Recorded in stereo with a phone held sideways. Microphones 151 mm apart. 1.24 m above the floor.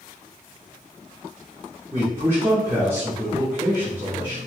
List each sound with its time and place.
1.9 s a man speaking: 15° right (ahead or behind), 0.7 m